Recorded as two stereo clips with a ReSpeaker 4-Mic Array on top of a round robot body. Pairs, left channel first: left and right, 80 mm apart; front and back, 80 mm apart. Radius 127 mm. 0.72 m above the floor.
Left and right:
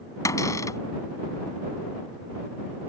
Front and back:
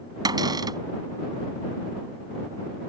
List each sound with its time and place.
0.2 s a cupboard door: 140° left